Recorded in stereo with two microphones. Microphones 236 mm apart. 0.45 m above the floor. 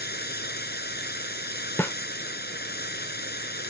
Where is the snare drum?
10° left (ahead or behind).